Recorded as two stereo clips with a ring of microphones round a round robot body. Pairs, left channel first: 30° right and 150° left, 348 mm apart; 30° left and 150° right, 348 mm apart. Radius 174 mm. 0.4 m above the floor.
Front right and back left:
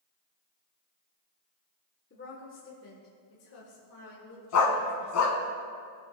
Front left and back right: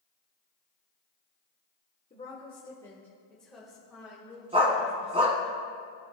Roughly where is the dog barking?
Right.